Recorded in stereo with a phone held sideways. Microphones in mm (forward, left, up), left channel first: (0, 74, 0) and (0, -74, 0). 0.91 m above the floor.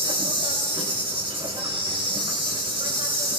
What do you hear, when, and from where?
0.0 s an insect: 35° right (ahead or behind), 3.5 m